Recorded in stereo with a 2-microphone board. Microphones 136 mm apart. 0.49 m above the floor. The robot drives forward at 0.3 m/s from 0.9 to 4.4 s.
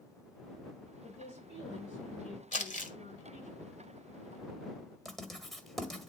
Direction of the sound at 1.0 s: 55° left (ahead or behind).